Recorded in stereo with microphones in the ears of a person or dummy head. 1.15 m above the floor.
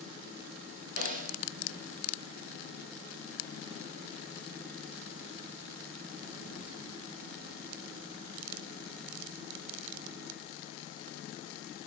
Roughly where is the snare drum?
Right.